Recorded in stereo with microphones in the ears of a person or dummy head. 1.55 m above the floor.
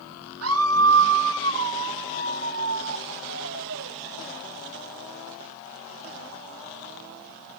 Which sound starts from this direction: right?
A scream, at 0.4 s.